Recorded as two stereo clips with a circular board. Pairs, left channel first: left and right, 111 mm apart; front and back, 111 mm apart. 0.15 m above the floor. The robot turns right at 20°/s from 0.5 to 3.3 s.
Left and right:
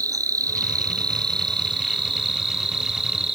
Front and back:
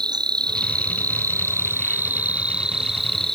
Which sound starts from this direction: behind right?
An insect, at 0.0 s.